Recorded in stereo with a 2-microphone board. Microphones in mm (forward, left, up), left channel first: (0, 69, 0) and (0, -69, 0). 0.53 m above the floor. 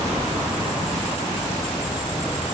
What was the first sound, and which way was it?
Only background noise.